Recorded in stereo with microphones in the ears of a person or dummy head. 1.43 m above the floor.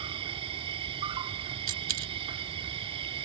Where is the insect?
25° right (ahead or behind).